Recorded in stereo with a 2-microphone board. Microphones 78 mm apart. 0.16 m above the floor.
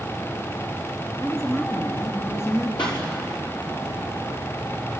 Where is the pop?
85° left, 6.5 m.